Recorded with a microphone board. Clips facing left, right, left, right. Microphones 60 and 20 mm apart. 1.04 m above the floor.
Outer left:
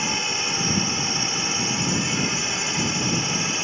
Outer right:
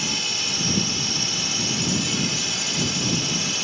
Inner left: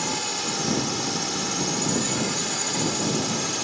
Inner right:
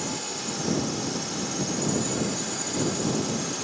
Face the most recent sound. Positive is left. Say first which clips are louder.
# outer left 3 dB, inner left 5 dB
turn(degrees=30)  # may be behind; listen again after turning